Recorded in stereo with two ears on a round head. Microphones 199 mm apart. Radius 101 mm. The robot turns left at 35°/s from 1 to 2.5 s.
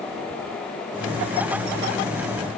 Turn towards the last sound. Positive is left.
No sound to turn to.